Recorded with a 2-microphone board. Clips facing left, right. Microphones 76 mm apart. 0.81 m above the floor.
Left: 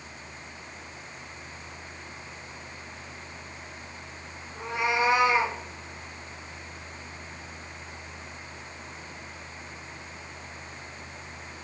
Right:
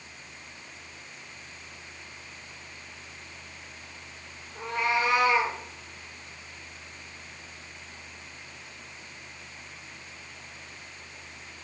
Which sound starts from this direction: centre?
A cat meowing, at 4.5 s.